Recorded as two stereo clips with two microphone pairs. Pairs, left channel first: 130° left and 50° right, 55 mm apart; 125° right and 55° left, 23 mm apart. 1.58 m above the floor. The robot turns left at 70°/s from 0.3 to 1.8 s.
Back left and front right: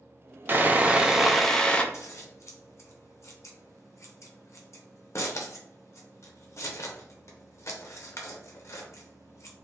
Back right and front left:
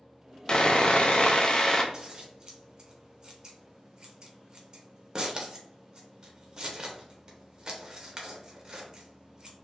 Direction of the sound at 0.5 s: 85° right.